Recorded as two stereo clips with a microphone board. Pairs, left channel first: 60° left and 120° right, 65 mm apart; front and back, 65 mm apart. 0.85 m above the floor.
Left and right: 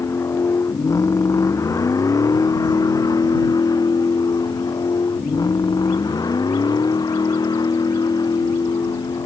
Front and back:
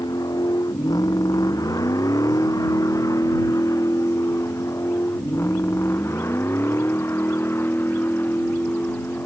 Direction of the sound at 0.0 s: 15° left.